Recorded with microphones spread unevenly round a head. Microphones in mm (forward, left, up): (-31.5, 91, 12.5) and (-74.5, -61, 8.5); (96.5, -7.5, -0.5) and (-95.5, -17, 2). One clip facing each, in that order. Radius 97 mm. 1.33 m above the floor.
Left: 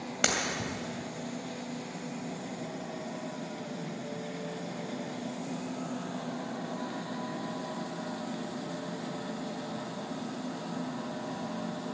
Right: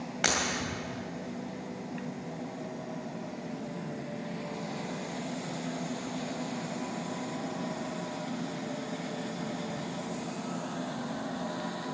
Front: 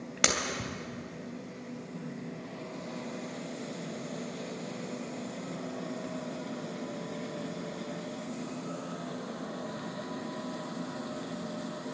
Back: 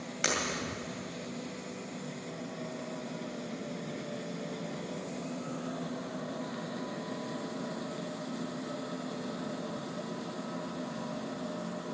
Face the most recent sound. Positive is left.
turn(degrees=20)